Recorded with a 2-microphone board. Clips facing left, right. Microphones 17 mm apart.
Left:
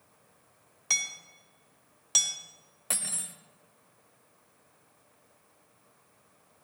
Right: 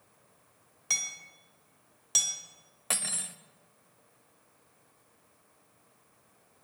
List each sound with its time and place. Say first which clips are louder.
0.9 s hammering: left 2 dB; 10° left (ahead or behind), 1.2 m
2.9 s cutlery clinking: right 2 dB; 15° right (ahead or behind), 0.5 m